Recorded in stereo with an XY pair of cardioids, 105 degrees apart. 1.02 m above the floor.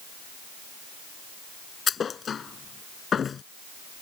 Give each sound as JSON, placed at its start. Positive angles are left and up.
{"t": 1.9, "sound": "a thud", "azimuth_deg": 45}